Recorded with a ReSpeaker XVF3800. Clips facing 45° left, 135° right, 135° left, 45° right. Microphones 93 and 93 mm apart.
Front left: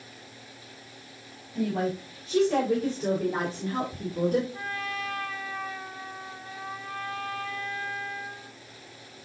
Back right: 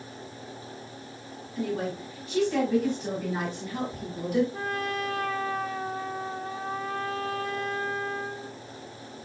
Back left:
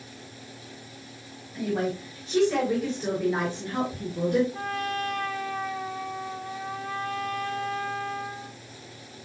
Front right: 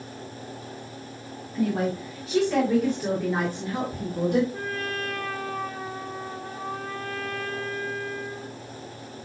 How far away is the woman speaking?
About 5 m.